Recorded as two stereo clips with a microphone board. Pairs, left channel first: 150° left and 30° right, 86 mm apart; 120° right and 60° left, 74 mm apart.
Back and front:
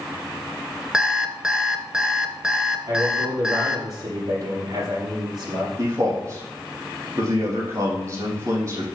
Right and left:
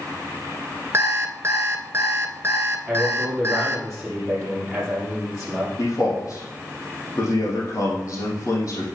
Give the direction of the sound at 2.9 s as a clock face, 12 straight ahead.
1 o'clock.